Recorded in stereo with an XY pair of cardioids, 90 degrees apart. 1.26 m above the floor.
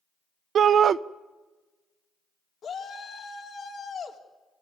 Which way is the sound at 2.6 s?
65° left.